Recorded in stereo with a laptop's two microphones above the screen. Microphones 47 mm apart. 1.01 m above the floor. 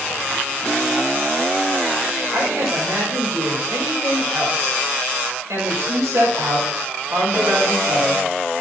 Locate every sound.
2.3 s a woman speaking: 85° right, 4.5 m